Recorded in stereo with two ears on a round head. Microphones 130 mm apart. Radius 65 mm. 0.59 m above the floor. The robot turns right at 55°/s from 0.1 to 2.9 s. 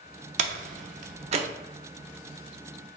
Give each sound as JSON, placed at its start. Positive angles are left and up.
{"t": 0.4, "sound": "a door slam", "side_deg": -50, "distance_m": 0.5}